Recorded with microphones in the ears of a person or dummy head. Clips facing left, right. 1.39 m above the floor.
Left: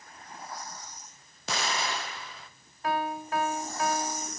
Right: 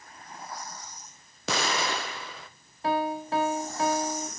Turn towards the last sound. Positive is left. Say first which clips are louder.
# right 3 dB
turn(degrees=-30)  # may be behind; listen again after turning